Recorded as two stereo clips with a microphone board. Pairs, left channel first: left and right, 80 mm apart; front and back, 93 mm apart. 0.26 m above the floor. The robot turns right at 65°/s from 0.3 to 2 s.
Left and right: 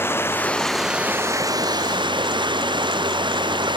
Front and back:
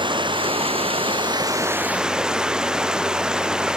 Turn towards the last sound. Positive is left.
turn(degrees=-100)